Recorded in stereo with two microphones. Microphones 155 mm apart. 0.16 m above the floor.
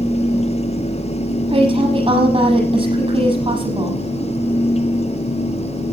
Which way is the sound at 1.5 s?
40° right (ahead or behind).